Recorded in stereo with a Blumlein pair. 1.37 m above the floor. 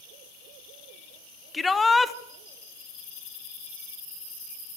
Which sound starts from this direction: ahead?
A shout, at 1.5 s.